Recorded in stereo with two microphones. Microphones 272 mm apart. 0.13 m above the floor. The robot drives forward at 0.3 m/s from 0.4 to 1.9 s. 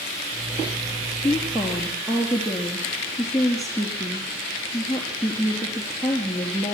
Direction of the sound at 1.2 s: Centre (ahead or behind).